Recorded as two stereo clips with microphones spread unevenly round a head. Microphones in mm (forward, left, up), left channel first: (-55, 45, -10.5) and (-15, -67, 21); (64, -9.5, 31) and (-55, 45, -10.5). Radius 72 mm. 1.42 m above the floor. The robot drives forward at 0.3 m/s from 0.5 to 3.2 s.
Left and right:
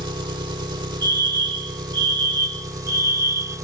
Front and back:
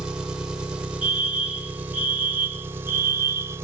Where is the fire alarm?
125° right; by 3.6 s 130° right.